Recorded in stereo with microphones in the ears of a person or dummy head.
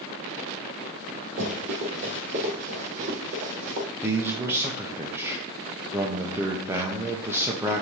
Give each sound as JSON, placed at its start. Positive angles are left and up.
{"t": 1.4, "sound": "running footsteps", "side_deg": -40, "distance_m": 3.0}
{"t": 4.0, "sound": "a man speaking", "side_deg": -15, "distance_m": 0.8}